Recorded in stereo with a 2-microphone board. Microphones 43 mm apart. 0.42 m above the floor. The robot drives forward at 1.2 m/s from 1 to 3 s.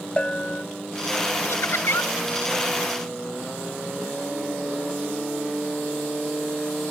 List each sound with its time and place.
0.2 s a bell: 25° left (ahead or behind)
1.5 s laughter: 70° left (ahead or behind); by 2.1 s 75° left (ahead or behind)